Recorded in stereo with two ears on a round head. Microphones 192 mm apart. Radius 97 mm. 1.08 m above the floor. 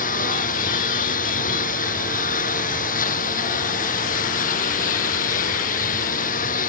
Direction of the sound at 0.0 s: 40° left (ahead or behind).